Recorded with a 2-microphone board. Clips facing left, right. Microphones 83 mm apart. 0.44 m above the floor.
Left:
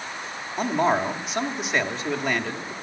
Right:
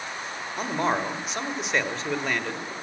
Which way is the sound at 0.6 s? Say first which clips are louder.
Left 4 dB; 5° left (ahead or behind).